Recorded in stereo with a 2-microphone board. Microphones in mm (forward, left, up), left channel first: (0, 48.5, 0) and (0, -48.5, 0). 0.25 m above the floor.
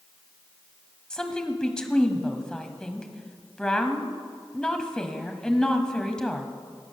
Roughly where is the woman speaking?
Centre.